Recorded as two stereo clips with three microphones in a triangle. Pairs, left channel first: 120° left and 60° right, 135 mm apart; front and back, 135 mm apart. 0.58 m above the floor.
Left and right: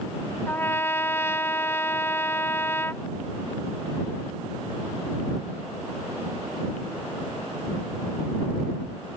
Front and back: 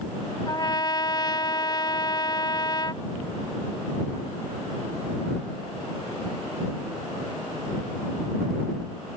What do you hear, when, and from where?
0.5 s a trumpet: 50° left